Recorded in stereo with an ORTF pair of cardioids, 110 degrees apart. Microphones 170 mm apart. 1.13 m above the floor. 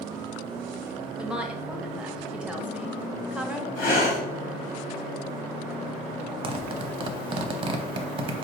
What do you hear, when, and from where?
1.2 s a woman speaking: 5° right, 0.7 m
3.8 s breathing: 65° left, 1.7 m
6.4 s a zipper: 30° right, 0.7 m